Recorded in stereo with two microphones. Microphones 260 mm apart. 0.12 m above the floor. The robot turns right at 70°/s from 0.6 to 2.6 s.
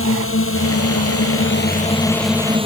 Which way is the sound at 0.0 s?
65° left.